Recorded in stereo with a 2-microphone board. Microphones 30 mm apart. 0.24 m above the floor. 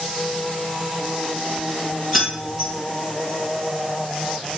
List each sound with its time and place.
2.1 s keys jangling: centre (ahead or behind), 1.7 m